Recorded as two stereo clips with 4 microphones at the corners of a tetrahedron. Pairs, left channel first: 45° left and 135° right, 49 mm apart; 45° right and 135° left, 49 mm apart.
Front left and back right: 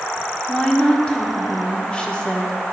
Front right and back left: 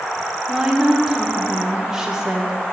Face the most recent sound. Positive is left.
turn(degrees=80)